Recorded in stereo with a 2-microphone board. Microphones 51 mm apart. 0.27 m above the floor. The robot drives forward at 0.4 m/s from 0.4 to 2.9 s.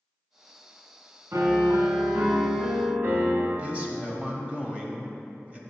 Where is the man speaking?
25° right (ahead or behind), 1.0 m.